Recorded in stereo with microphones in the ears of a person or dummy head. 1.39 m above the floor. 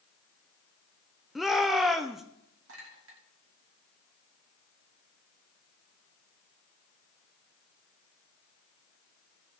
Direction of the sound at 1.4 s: 5° right (ahead or behind).